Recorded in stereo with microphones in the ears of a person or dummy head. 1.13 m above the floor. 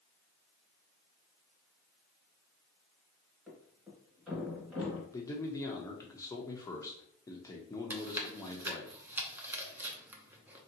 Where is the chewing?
15° right (ahead or behind), 0.6 m.